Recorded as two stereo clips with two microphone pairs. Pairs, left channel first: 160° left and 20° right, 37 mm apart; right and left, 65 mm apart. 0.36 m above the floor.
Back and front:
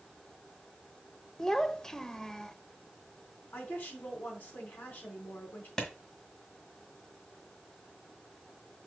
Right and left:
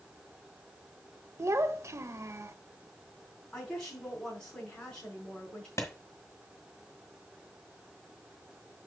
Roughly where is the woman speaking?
Behind.